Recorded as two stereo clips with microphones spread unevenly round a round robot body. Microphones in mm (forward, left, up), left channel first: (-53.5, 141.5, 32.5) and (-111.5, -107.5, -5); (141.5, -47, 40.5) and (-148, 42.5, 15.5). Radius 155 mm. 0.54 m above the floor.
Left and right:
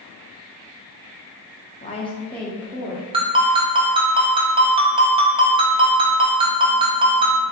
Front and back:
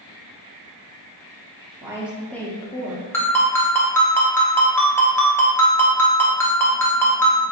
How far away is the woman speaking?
About 0.6 m.